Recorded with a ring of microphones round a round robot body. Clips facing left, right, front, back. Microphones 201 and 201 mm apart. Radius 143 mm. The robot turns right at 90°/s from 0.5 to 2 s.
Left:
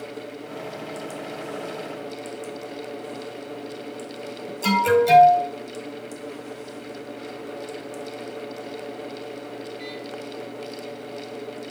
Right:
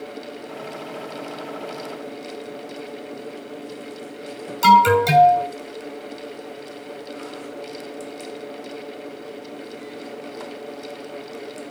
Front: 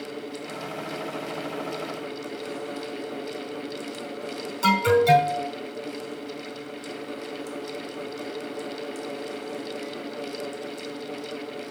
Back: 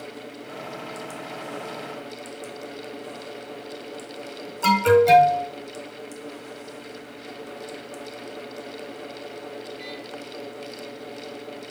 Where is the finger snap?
I don't hear a finger snap.